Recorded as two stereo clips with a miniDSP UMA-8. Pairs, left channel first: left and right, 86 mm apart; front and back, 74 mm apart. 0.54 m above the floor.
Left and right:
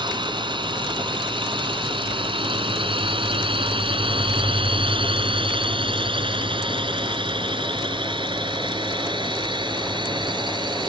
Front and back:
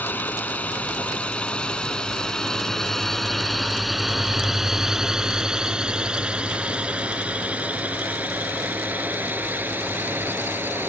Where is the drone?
65° right; by 10.9 s 115° right.